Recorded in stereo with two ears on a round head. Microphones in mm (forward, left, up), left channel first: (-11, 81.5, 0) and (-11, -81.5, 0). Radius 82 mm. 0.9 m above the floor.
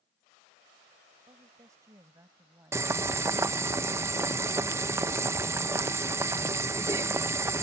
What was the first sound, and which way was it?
A woman speaking, 20° right (ahead or behind).